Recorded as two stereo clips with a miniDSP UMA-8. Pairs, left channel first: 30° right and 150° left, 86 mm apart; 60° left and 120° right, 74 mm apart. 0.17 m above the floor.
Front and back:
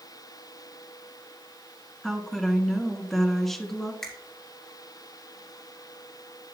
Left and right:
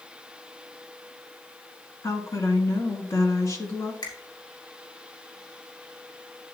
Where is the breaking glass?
No breaking glass in this recording.